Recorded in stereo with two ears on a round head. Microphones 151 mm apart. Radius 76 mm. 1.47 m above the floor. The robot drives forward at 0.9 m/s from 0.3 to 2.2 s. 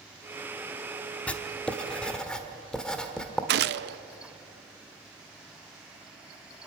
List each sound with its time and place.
1.3 s writing: 10° left (ahead or behind), 1.1 m; by 3.4 s 5° left (ahead or behind), 1.6 m
3.5 s a gunshot: 65° right (ahead or behind), 0.6 m